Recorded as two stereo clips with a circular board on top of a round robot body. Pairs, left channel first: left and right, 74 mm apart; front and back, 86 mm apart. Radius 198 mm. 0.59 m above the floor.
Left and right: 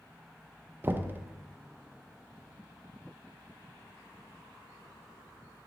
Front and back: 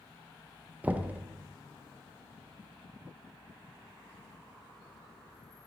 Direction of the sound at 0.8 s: 120° right.